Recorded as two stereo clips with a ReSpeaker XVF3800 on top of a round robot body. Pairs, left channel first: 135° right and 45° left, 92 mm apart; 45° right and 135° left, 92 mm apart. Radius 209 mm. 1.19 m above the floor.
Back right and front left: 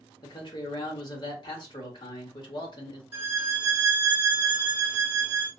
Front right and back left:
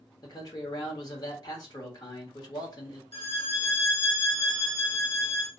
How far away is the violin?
About 1.2 m.